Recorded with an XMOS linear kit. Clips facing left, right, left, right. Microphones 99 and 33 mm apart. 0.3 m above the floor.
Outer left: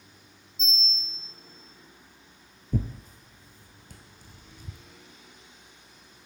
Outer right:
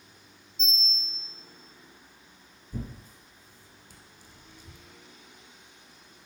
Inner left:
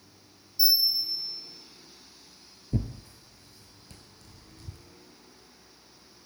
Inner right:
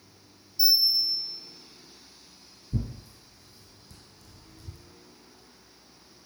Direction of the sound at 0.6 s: 5° left (ahead or behind).